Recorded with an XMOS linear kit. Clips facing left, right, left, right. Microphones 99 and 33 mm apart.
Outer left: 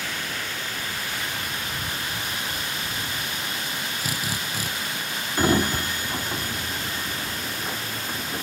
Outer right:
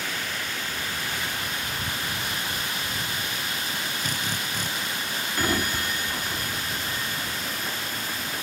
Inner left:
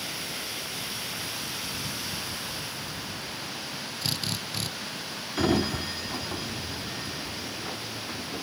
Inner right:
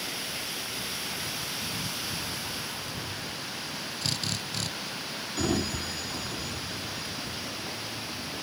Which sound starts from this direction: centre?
A drill, at 4.0 s.